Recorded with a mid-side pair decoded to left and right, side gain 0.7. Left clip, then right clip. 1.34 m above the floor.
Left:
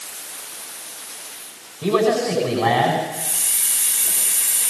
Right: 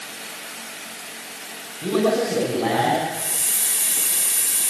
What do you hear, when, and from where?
1.8 s a man speaking: 30° left, 9 m
3.1 s a hiss: straight ahead, 6 m